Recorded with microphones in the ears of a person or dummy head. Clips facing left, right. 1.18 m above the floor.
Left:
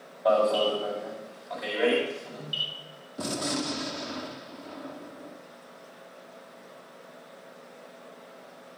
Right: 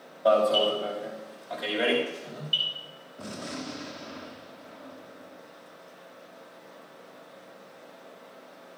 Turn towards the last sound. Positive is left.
turn(degrees=65)  # may be behind; listen again after turning